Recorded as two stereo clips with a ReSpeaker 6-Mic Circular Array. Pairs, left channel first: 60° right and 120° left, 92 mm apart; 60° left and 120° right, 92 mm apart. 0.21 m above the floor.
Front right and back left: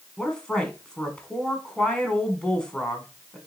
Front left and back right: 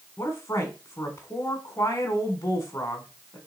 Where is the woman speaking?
15° left, 1.4 m.